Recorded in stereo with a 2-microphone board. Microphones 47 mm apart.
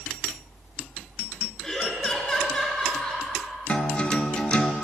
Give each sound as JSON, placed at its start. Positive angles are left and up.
{"t": 1.6, "sound": "laughter", "side_deg": 10, "distance_m": 1.3}
{"t": 3.7, "sound": "a guitar", "side_deg": 25, "distance_m": 0.5}